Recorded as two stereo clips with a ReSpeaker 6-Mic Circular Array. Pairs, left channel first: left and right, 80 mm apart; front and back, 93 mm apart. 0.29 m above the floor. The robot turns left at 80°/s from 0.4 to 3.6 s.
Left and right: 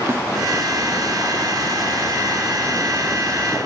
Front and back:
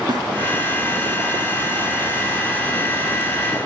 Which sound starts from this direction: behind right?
A snare drum, at 0.1 s.